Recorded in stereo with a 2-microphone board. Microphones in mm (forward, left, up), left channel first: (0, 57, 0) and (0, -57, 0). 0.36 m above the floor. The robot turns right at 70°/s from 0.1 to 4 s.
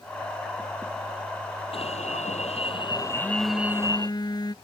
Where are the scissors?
No scissors in this recording.